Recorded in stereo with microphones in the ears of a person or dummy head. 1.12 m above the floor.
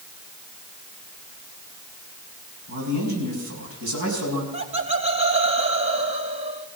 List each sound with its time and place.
2.7 s a man speaking: 80° right, 8 m
4.5 s laughter: 35° right (ahead or behind), 2 m